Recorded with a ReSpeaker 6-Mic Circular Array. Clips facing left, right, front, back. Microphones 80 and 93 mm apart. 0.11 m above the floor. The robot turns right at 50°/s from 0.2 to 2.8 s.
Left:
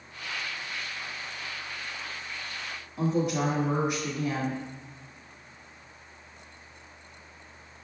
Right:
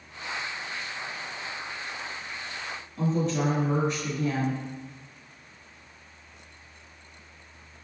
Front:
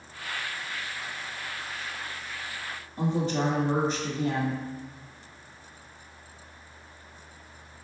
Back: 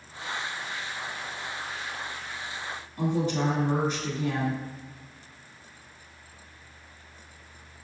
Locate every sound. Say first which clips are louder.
3.0 s a woman speaking: even, even; 20° left, 1.3 m